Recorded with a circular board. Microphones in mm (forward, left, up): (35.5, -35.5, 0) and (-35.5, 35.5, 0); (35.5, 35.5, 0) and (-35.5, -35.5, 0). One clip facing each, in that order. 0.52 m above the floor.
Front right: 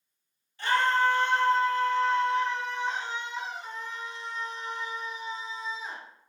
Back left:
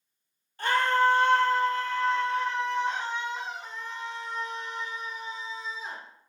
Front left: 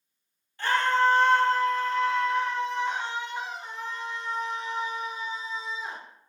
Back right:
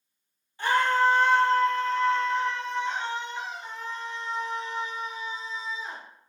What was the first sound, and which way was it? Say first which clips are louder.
A scream: back left 1 dB, back right 1 dB; 155° left.